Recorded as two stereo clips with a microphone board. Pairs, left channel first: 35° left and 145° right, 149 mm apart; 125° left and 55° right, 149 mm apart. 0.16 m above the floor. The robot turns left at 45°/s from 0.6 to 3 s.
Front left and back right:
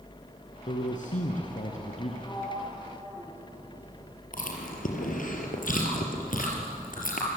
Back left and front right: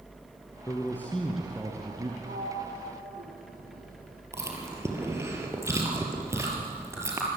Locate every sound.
0.7 s a man speaking: 65° left, 2.5 m; by 2.1 s 5° right, 2.5 m
2.2 s a sliding door: 35° right, 4.5 m; by 4.2 s 70° right, 4.5 m
4.3 s chewing: 15° left, 4.5 m